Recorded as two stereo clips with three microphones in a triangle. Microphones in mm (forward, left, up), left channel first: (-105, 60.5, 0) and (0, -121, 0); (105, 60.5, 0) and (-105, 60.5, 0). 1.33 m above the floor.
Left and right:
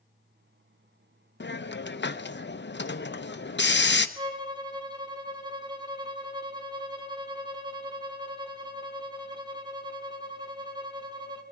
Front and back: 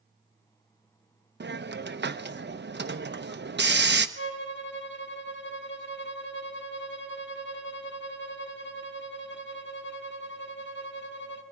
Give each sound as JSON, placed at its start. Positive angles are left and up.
{"t": 1.4, "sound": "a hiss", "azimuth_deg": 150, "distance_m": 0.8}
{"t": 4.2, "sound": "a violin", "azimuth_deg": 5, "distance_m": 1.4}